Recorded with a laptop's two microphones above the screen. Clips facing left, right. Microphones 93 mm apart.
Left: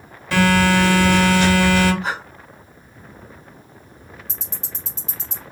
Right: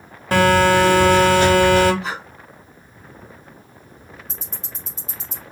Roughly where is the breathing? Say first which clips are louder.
Left 3 dB; left.